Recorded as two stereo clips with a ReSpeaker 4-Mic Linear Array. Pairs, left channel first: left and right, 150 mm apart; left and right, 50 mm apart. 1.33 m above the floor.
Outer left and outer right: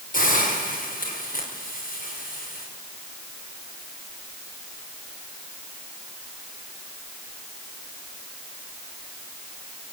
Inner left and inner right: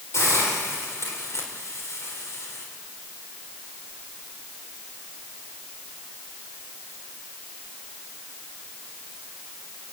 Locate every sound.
0.1 s a hiss: 65° left (ahead or behind), 6 m